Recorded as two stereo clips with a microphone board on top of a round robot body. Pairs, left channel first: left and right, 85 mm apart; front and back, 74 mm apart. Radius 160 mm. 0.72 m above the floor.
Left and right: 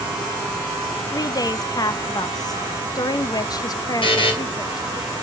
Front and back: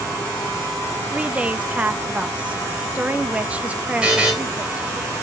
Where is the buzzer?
100° left, 3 m.